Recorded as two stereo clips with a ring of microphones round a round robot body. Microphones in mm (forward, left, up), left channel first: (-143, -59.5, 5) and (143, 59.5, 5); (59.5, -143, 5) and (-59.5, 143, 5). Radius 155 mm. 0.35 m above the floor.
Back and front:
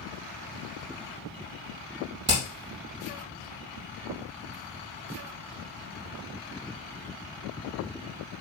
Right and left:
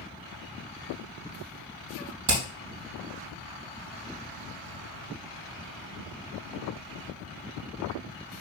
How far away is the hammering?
About 6 m.